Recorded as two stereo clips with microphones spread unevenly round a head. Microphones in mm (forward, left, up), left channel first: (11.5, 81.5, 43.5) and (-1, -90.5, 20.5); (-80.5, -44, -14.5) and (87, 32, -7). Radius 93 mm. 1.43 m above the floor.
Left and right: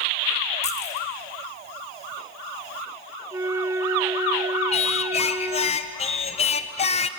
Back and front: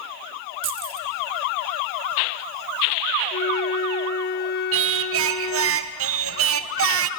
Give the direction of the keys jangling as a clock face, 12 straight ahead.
11 o'clock.